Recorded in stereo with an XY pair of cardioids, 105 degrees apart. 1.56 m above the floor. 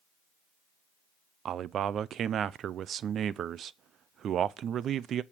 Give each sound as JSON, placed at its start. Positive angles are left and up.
{"t": 1.4, "sound": "a man speaking", "azimuth_deg": -60, "distance_m": 0.5}